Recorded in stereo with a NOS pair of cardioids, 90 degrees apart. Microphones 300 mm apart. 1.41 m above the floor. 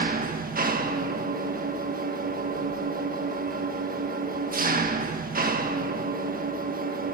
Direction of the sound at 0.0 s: 30° right.